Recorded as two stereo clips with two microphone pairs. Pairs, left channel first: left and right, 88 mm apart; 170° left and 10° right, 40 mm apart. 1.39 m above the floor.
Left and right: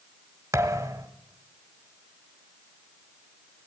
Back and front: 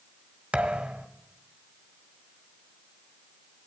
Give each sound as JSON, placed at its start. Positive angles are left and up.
{"t": 0.5, "sound": "a thud", "azimuth_deg": -55, "distance_m": 1.5}